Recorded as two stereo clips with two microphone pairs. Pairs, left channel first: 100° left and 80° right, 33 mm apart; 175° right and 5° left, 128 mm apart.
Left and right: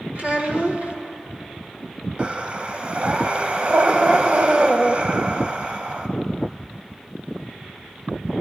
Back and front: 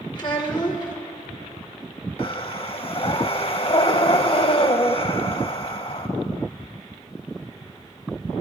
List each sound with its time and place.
0.1 s a child speaking: 120° right, 2.0 m
2.2 s breathing: 130° right, 0.7 m